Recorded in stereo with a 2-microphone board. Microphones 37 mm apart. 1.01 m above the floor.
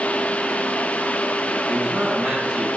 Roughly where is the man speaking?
Right.